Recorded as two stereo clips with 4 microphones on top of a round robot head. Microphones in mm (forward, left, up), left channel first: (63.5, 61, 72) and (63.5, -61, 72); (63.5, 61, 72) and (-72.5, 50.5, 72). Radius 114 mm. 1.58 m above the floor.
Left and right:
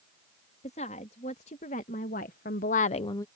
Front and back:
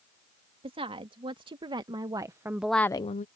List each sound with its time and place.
0.6 s a woman speaking: 135° left; by 3.3 s 25° left